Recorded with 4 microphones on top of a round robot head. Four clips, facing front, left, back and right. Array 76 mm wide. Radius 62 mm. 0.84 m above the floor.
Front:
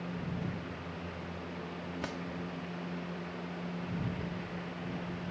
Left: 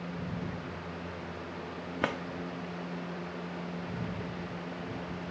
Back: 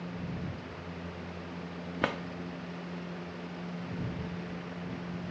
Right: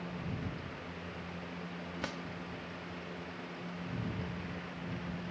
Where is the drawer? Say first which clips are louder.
Left 10 dB, back 10 dB; 140° left.